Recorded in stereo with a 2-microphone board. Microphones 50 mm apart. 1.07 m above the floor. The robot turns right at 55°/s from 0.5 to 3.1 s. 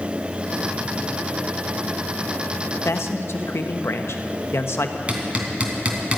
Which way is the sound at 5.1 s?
25° right (ahead or behind).